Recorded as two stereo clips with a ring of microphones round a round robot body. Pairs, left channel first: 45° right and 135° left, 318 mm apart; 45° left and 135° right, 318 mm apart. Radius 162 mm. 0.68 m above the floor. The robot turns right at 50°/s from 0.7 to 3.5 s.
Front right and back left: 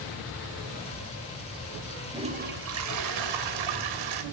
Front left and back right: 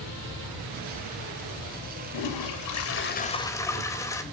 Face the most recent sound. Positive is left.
turn(degrees=125)